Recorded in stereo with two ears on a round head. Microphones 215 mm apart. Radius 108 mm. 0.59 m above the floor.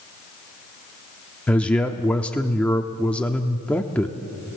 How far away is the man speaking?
About 0.8 m.